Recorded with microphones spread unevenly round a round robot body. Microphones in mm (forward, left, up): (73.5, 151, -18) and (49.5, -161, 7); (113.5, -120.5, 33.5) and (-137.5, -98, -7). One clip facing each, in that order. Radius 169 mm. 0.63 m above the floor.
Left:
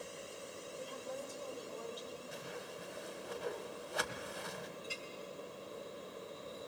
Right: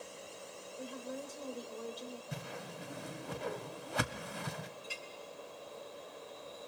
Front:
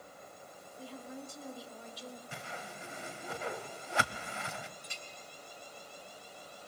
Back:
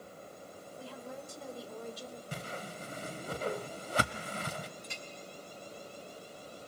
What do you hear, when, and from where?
0.8 s a woman speaking: straight behind, 2.5 m; by 2.2 s 150° right, 2 m
2.3 s a whoosh: 130° right, 0.9 m
4.8 s a clink: 85° right, 2 m